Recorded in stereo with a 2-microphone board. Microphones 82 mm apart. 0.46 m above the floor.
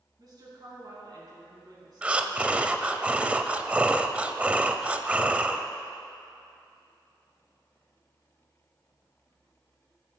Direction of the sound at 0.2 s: 55° right (ahead or behind).